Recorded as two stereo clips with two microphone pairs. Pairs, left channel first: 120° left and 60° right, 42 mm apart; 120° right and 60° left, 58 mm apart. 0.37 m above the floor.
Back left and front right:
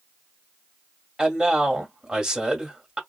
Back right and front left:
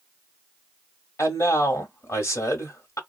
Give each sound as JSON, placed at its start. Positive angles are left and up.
{"t": 1.2, "sound": "a man speaking", "azimuth_deg": -125, "distance_m": 1.3}